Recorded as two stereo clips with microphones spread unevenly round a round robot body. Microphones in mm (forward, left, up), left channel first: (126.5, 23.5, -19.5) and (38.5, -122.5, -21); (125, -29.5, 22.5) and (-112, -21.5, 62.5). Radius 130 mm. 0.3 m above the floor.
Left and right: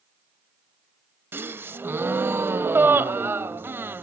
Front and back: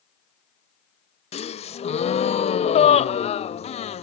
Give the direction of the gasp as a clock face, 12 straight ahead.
2 o'clock.